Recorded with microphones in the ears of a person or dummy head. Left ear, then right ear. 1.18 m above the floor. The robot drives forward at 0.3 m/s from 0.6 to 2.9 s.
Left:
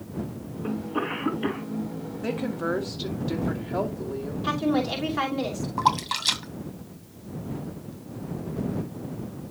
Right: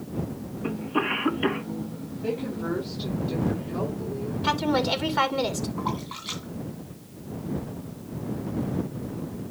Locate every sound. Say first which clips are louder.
0.6 s a cough: right 3 dB; 80° right, 2.5 m; by 1.7 s 75° right (ahead or behind), 2.5 m
2.2 s a woman speaking: left 1 dB; 55° left (ahead or behind), 2.5 m
4.4 s a woman speaking: right 2 dB; 25° right (ahead or behind), 3 m
5.8 s a splash: left 9 dB; 70° left (ahead or behind), 2.5 m